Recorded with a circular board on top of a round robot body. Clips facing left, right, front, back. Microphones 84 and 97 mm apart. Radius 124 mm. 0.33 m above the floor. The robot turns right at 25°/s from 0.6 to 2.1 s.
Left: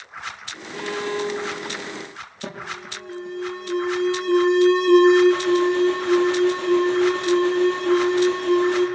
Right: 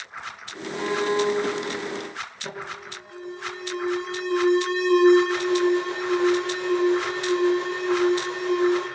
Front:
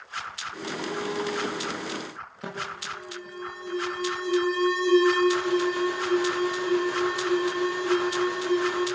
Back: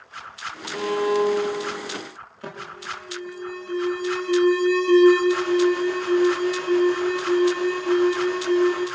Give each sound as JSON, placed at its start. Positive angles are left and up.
{"t": 0.7, "sound": "a violin", "azimuth_deg": -170, "distance_m": 0.7}
{"t": 2.4, "sound": "an alarm", "azimuth_deg": 85, "distance_m": 10.0}